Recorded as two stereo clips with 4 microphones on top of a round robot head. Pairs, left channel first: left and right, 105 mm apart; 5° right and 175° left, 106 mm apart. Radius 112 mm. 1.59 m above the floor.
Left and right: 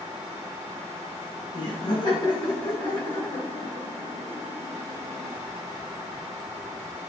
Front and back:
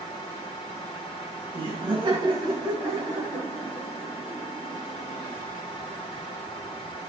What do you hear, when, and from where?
1.5 s laughter: 140° left, 1.5 m; by 5.3 s 130° left, 5.5 m